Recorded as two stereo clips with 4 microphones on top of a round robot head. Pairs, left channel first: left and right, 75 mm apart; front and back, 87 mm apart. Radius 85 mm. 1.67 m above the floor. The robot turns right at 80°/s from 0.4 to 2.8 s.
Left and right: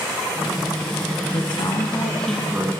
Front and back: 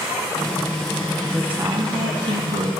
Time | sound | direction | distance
1.3 | a woman speaking | 95° left | 1.9 m